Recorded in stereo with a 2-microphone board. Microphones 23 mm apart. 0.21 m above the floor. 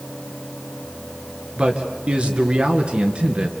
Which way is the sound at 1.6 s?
55° right (ahead or behind).